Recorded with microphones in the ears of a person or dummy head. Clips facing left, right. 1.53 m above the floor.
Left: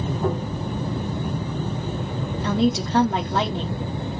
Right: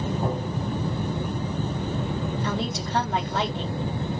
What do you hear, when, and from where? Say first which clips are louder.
0.2 s tapping: left 3 dB; 35° right (ahead or behind), 2 m
2.4 s a woman speaking: left 7 dB; 55° left (ahead or behind), 0.8 m